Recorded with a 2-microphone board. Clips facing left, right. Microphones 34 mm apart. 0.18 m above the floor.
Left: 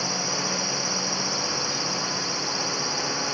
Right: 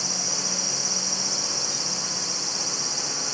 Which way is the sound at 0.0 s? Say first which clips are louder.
Left 4 dB; 20° left (ahead or behind).